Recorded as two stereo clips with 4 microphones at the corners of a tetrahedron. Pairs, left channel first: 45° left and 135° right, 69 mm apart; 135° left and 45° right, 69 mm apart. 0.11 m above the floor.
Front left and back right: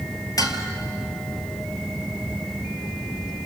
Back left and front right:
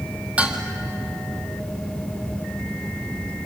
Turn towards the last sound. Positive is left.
turn(degrees=25)